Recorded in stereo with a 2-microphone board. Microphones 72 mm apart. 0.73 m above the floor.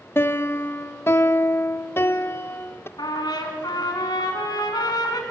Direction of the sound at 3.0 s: 70° left (ahead or behind).